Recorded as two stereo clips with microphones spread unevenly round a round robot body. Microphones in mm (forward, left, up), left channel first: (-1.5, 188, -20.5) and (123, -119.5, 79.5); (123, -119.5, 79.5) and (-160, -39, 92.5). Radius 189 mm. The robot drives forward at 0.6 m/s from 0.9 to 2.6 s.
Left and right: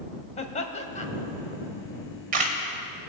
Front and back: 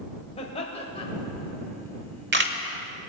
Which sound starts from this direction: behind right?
A camera shutter, at 1.9 s.